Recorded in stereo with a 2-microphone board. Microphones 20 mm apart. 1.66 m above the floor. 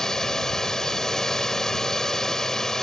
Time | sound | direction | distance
0.0 | a drone | 25° left (ahead or behind) | ?